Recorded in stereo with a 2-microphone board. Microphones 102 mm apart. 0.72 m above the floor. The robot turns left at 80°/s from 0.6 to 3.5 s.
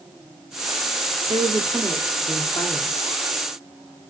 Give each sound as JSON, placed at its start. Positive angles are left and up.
{"t": 1.3, "sound": "a woman speaking", "azimuth_deg": -115, "distance_m": 1.6}